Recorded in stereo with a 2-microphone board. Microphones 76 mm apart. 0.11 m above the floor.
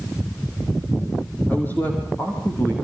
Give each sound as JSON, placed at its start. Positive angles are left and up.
{"t": 1.5, "sound": "a man speaking", "side_deg": 25, "distance_m": 5.0}